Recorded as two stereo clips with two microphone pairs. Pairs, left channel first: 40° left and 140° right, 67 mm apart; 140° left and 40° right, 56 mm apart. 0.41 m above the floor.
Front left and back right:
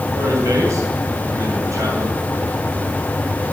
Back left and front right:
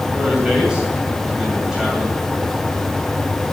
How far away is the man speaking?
About 2.5 m.